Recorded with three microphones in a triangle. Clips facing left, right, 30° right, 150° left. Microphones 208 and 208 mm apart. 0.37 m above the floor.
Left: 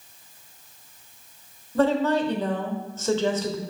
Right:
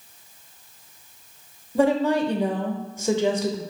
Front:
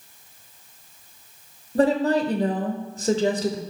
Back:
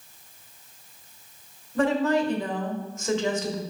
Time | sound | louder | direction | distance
1.8 | a woman speaking | right 1 dB, front 3 dB | 20° right | 1.0 m